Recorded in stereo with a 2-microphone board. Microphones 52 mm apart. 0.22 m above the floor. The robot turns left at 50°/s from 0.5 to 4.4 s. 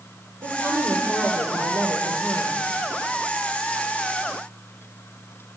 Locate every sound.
0.4 s a woman speaking: 40° right, 6 m; by 2.5 s 145° right, 6 m